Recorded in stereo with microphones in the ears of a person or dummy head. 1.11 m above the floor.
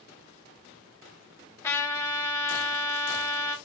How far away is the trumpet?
About 0.8 m.